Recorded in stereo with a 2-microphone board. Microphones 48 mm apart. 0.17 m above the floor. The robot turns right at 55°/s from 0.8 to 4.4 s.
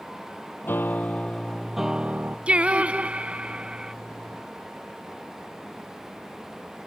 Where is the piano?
130° left; by 2.4 s 145° right.